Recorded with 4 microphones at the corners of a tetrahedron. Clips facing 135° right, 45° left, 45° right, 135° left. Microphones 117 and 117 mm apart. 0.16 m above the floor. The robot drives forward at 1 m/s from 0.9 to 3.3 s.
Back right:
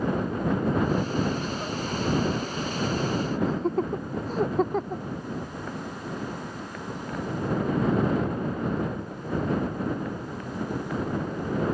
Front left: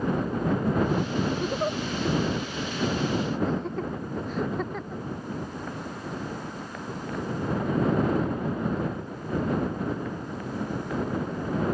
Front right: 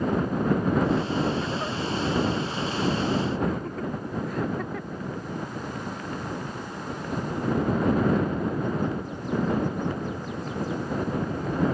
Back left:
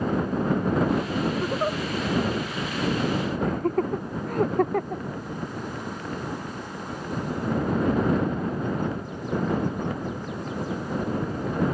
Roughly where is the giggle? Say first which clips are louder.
Front left 4 dB, back left 4 dB; left.